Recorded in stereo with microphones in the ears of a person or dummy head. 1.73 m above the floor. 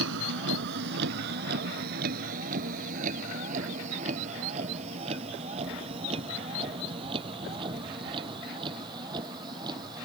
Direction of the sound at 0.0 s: 75° right (ahead or behind).